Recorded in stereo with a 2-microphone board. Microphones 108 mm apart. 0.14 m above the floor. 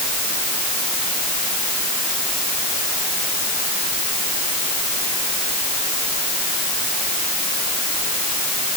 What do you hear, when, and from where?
Only background noise.